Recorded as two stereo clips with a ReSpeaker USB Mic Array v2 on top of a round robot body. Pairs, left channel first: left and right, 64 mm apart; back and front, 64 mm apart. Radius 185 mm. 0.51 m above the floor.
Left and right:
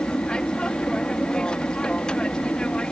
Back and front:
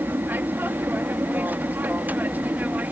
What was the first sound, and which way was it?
An aircraft, 25° left.